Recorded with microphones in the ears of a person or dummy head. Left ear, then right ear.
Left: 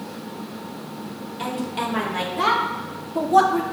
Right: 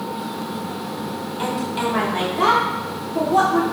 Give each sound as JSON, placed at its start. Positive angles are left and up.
{"t": 1.4, "sound": "a woman speaking", "side_deg": 0, "distance_m": 3.0}